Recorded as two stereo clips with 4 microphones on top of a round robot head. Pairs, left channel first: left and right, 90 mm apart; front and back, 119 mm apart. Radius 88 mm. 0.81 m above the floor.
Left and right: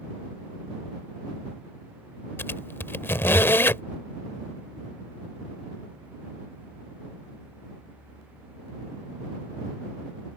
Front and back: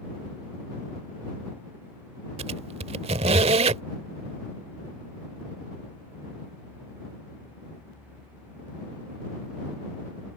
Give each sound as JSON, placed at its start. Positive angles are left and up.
{"t": 2.4, "sound": "a squeak", "azimuth_deg": 150}